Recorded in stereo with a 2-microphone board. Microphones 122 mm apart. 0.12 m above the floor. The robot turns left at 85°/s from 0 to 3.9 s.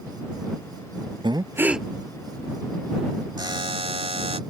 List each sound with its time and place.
1.2 s breathing: 130° right; by 1.9 s straight behind
3.4 s a buzzer: 45° right; by 4.4 s 90° right